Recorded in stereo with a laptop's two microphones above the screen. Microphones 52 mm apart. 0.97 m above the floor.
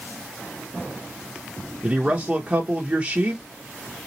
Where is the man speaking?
25° right (ahead or behind), 0.9 m.